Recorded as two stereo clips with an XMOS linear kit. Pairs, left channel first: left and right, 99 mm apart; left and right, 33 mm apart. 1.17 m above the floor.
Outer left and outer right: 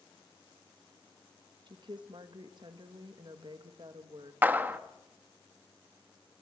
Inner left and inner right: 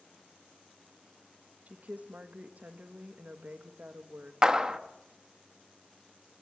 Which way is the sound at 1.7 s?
50° right (ahead or behind).